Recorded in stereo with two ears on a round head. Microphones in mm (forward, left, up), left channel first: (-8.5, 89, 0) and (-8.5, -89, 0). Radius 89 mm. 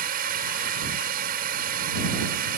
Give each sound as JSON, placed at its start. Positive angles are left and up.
{"t": 0.0, "sound": "a drone", "side_deg": -50}